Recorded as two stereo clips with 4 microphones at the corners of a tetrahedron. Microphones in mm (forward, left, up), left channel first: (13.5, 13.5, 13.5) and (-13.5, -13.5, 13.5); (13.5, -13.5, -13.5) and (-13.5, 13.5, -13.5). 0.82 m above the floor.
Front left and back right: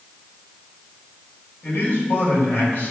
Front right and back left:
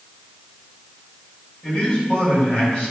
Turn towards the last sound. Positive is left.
turn(degrees=20)